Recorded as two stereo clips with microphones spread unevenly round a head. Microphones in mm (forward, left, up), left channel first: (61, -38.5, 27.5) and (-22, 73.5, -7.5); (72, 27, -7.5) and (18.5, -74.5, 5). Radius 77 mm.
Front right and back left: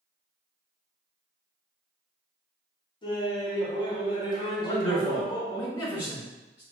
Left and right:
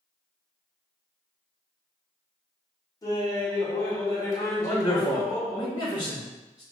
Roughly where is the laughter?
Ahead.